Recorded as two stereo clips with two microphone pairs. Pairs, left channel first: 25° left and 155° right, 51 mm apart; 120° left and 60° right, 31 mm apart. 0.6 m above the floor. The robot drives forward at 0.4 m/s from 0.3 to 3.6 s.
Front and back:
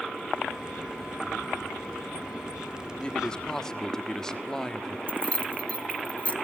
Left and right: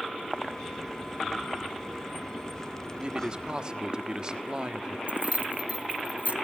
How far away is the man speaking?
About 1.4 m.